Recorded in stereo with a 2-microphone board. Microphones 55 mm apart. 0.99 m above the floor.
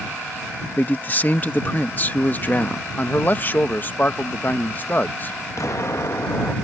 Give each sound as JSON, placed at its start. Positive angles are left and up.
{"t": 0.8, "sound": "a man speaking", "side_deg": 35}
{"t": 3.0, "sound": "a man speaking", "side_deg": 35}
{"t": 5.6, "sound": "an explosion", "side_deg": 60}